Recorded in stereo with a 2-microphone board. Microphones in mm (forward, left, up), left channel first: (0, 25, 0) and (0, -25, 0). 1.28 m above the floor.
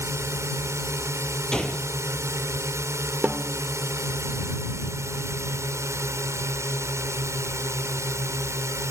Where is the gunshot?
15° left (ahead or behind).